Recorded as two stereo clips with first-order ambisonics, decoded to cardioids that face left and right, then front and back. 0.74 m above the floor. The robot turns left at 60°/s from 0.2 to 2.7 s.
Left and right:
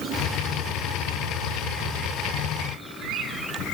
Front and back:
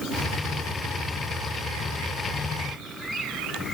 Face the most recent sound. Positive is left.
No sound to turn to.